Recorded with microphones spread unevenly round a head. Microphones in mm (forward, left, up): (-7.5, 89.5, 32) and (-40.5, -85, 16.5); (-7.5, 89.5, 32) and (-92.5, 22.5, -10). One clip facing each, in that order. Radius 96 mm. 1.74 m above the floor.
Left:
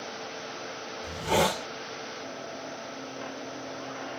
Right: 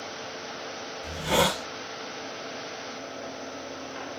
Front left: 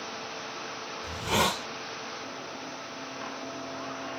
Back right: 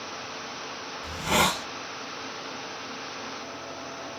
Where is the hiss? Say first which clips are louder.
Right 1 dB, back right 2 dB; 150° right, 1.2 m.